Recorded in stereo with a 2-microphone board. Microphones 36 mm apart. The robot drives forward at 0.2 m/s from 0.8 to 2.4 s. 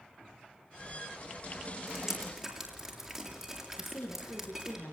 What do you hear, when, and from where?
1.9 s dripping: 10° right (ahead or behind), 6.5 m
3.8 s a woman speaking: 85° left, 7.5 m